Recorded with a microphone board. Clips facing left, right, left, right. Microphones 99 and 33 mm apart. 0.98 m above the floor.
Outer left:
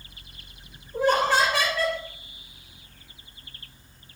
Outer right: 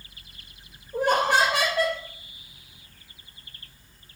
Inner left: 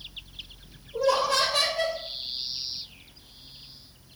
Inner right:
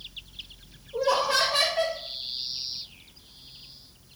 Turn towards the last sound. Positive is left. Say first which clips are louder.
# even, even
turn(degrees=-60)  # may be behind; listen again after turning